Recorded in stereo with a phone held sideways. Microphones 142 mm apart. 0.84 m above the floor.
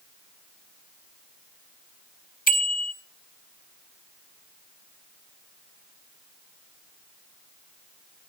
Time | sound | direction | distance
2.5 | a bicycle bell | 85° left | 3.5 m